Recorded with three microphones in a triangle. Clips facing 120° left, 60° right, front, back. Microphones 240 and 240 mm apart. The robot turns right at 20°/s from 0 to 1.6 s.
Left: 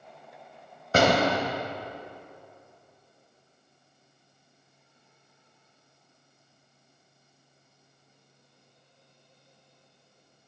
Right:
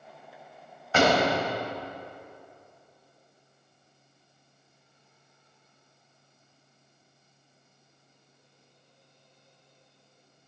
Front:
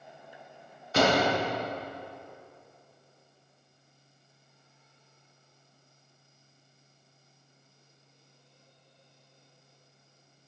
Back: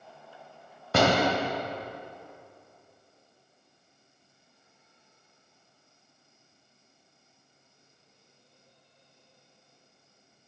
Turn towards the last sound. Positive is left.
turn(degrees=180)